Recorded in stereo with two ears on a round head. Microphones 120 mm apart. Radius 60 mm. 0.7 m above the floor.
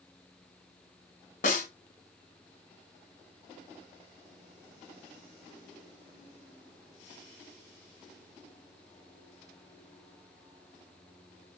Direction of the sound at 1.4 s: 65° left (ahead or behind).